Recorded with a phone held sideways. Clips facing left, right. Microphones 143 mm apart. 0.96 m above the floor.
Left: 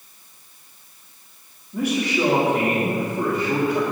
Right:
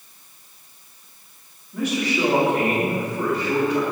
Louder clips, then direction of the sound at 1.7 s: Left 1 dB; 10° left (ahead or behind).